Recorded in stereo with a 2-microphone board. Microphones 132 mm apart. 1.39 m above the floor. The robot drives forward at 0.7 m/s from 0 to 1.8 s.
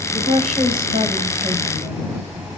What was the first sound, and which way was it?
A woman speaking, 45° right (ahead or behind).